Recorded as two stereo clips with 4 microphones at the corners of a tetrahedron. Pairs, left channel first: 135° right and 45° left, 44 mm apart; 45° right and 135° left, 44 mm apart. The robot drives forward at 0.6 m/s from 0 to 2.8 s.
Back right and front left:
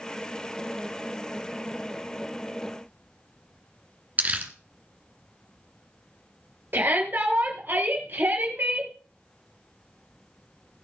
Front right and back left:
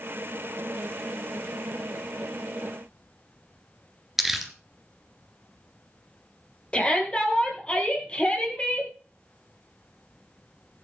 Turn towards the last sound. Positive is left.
turn(degrees=15)